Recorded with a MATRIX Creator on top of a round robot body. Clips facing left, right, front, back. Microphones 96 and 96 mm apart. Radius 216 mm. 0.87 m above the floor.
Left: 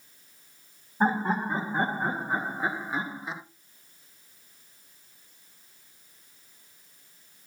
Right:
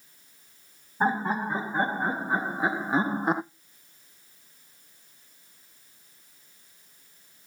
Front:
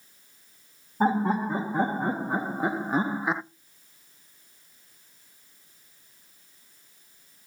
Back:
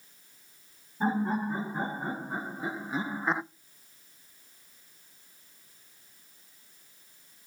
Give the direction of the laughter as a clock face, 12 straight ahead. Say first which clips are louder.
Even, front 5 dB; 12 o'clock.